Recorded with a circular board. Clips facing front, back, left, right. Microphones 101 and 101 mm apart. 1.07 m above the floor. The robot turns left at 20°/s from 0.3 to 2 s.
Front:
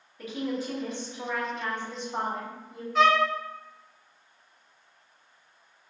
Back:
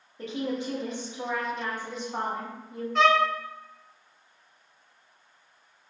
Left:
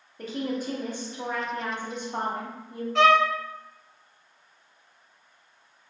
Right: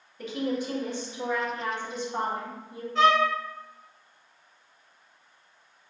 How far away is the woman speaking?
About 1.0 m.